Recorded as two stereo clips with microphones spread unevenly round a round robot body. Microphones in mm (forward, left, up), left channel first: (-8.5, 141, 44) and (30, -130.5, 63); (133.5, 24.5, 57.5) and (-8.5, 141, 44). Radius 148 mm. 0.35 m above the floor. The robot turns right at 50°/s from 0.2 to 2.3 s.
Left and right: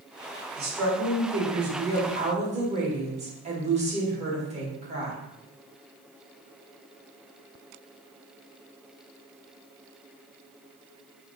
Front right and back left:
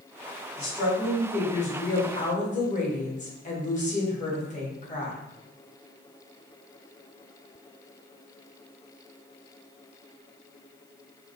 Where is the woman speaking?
115° right, 1.1 m; by 5.2 s 25° right, 1.1 m.